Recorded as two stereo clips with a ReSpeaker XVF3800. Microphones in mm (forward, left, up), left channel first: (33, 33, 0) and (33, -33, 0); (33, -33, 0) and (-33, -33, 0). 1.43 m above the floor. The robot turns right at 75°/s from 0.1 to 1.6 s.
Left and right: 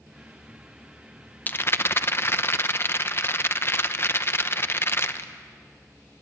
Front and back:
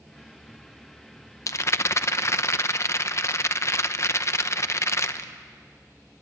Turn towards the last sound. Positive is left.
turn(degrees=40)